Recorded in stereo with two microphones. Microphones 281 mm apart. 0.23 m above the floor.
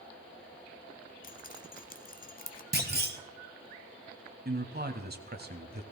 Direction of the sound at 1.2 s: 30° left (ahead or behind).